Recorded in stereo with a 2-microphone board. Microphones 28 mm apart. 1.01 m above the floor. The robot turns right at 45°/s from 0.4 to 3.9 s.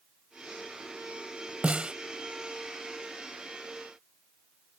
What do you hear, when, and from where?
1.6 s a snare drum: 50° right (ahead or behind); by 1.9 s 35° right (ahead or behind)